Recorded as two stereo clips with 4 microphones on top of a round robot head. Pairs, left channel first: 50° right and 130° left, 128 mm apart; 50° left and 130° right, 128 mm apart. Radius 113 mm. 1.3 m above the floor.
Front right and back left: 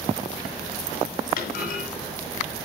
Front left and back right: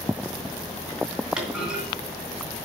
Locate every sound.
1.4 s a clunk: 45° right, 2.5 m